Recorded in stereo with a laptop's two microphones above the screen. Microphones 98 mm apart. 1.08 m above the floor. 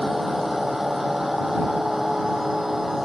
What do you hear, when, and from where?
0.0 s a machine running: 5° right (ahead or behind)